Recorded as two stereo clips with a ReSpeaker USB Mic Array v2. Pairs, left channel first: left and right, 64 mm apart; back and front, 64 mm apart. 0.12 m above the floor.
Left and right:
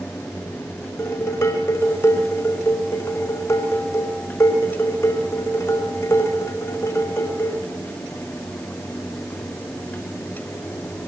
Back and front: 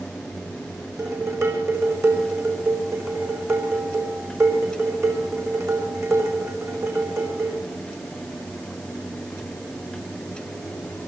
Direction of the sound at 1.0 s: 40° left.